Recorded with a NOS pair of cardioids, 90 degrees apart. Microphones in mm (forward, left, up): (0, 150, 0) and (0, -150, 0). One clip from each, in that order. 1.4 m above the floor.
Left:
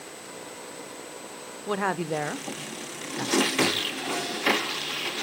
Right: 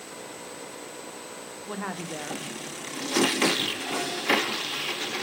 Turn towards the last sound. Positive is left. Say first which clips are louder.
# left 8 dB
turn(degrees=40)